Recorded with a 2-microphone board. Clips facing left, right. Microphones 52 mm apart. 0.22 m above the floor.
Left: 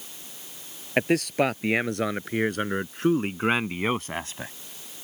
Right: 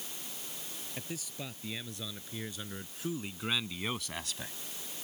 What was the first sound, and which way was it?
A man speaking, 65° left (ahead or behind).